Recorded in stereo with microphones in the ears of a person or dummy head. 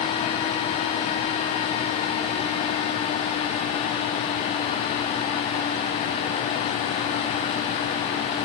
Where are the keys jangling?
I don't hear keys jangling.